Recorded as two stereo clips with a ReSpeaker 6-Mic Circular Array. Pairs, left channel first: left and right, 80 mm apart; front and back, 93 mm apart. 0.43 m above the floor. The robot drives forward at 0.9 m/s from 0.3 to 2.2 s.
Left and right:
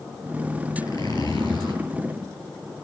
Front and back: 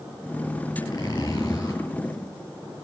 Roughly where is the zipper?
Ahead left.